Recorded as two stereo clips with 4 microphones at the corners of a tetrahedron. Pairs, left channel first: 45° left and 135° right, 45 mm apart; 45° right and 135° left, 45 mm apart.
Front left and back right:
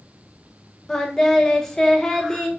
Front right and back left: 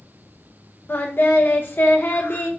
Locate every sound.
0.9 s singing: 25° right, 0.8 m